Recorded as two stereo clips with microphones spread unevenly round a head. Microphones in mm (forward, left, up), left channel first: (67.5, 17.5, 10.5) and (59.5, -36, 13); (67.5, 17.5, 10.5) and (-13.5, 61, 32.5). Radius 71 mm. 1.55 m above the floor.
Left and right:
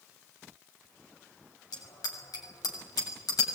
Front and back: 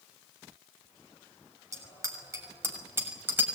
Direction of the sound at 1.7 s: 100° left.